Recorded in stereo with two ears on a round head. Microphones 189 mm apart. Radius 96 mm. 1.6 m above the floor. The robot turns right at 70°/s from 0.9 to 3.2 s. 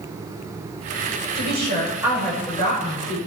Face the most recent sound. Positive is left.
turn(degrees=70)